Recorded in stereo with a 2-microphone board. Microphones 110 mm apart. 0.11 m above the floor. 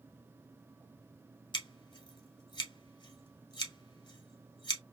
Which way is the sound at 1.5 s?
45° left (ahead or behind).